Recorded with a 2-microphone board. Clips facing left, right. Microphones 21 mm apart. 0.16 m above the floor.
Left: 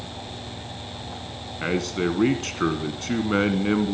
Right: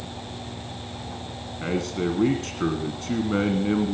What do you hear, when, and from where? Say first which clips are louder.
1.6 s a man speaking: left 2 dB; 30° left (ahead or behind), 1.1 m